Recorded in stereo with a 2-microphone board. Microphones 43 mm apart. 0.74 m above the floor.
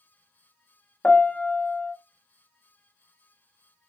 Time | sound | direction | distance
1.0 | a piano | 30° left (ahead or behind) | 0.5 m